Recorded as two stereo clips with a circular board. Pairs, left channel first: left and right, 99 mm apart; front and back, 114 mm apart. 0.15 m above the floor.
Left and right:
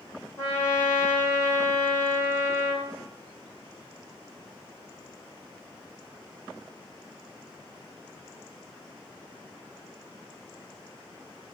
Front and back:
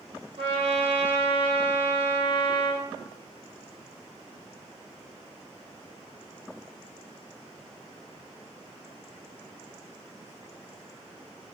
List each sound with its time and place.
0.4 s a trumpet: 150° left, 4 m